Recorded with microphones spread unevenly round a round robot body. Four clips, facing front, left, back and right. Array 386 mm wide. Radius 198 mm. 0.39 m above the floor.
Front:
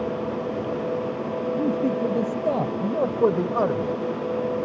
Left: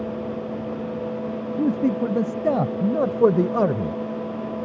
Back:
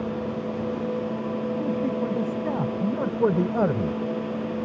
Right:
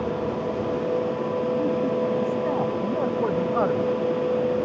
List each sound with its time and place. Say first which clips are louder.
1.6 s a man speaking: left 2 dB, front 4 dB; 85° left; by 4.0 s 135° left